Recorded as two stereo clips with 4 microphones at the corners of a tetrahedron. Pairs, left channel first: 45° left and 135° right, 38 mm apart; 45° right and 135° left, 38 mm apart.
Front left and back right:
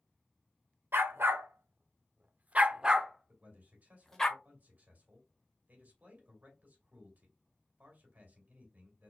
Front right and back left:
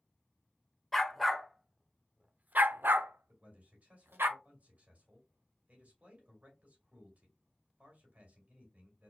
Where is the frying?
No frying in this recording.